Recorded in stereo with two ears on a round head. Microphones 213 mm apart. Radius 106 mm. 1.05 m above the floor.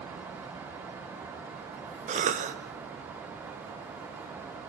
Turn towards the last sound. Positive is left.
turn(degrees=-35)  # may be behind; listen again after turning